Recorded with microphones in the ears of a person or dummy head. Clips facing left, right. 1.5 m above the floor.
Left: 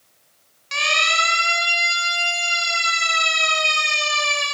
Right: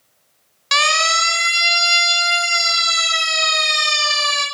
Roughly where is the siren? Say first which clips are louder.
Right 4 dB; right.